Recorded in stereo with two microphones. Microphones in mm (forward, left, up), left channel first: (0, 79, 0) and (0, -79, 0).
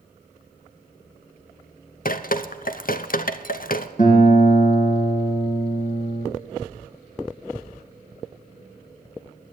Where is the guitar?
55° left (ahead or behind), 2 m.